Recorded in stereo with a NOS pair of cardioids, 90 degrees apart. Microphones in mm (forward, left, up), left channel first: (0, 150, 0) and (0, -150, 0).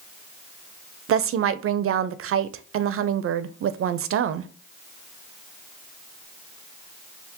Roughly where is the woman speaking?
Ahead right.